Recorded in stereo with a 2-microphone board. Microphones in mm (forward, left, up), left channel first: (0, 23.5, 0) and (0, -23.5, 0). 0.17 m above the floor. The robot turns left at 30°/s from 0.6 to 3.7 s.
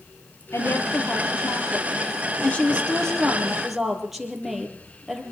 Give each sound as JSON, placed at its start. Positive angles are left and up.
{"t": 0.5, "sound": "a woman speaking", "azimuth_deg": 90, "distance_m": 5.0}